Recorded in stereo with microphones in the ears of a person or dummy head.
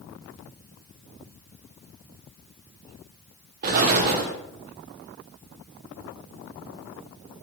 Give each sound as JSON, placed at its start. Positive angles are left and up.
{"t": 3.6, "sound": "an explosion", "side_deg": -50, "distance_m": 0.5}